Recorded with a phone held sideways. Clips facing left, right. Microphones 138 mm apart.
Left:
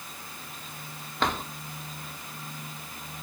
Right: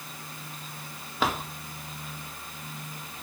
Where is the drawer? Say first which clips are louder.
Even; 5° right (ahead or behind), 1.6 m.